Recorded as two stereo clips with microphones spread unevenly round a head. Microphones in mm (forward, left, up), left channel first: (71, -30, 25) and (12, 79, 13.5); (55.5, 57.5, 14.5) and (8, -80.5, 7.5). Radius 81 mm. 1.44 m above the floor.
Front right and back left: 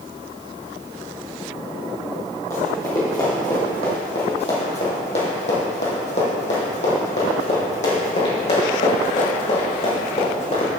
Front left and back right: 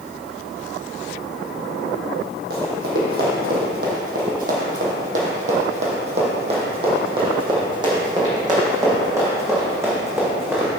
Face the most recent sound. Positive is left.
turn(degrees=-35)